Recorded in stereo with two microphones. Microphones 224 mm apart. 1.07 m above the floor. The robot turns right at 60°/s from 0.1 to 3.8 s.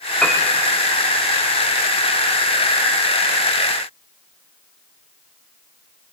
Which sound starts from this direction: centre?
A piano, at 0.2 s.